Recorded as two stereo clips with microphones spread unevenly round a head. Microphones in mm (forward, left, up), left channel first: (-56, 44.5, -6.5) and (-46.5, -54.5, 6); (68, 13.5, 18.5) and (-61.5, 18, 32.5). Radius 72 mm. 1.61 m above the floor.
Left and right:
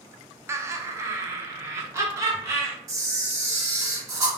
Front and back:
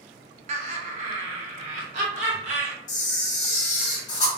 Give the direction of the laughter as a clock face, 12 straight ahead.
5 o'clock.